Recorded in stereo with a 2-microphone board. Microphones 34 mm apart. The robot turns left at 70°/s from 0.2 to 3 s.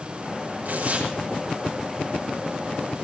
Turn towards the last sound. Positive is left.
turn(degrees=80)